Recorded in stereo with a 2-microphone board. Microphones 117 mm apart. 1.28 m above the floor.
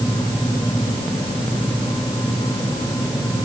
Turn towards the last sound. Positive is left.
No sound to turn to.